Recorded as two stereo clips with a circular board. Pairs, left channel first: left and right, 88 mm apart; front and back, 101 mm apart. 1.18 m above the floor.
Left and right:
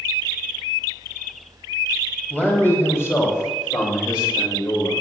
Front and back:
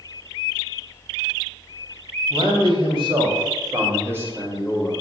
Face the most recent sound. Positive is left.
turn(degrees=90)